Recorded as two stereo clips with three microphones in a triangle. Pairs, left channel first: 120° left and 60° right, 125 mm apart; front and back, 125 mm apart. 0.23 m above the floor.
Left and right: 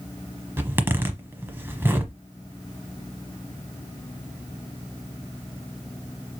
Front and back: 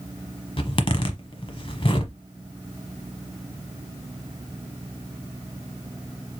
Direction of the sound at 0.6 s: 5° left.